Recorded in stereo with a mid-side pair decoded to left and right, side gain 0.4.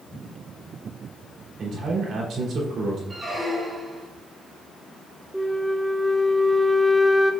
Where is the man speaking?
65° right, 3.5 m.